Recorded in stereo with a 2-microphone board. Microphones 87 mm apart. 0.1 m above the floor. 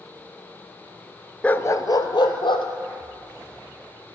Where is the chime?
I don't hear a chime.